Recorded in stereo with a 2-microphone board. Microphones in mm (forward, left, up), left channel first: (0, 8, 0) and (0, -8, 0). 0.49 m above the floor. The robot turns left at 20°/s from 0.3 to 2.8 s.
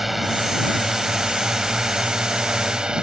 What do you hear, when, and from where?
0.0 s a drone: 15° right; by 3.0 s 65° right